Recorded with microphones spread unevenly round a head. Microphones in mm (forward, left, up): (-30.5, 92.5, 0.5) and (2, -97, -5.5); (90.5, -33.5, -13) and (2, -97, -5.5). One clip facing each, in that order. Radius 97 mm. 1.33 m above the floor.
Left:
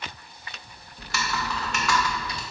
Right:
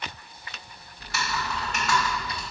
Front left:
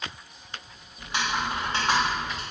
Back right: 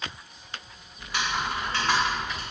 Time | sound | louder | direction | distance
1.0 | typing on a keyboard | left 1 dB, front left 1 dB | 115° left | 0.7 m